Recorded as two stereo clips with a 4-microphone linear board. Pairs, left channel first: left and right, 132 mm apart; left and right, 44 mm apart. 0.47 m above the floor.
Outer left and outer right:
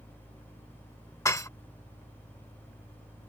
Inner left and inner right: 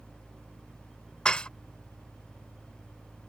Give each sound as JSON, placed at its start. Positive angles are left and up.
{"t": 1.2, "sound": "dishes clattering", "side_deg": 25}